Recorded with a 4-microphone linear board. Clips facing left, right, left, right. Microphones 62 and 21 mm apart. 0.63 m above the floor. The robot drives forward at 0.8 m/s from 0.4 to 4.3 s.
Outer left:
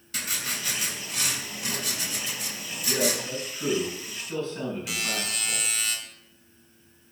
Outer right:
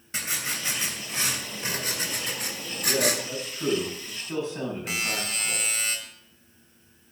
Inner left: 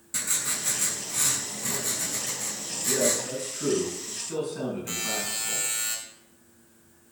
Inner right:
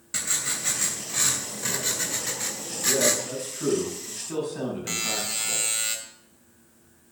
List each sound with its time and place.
0.1 s writing: 25° right (ahead or behind), 3 m; by 3.2 s 60° right (ahead or behind), 1.4 m
2.9 s a man speaking: 15° right (ahead or behind), 6 m; by 5.7 s 20° right (ahead or behind), 4.5 m
4.9 s a buzzer: 40° right (ahead or behind), 2.5 m